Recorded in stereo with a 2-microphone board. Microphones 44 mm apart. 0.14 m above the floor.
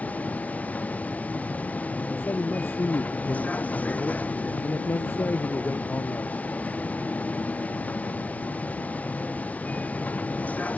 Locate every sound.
0.0 s a vehicle: 35° left (ahead or behind)
2.1 s a man speaking: 65° left (ahead or behind)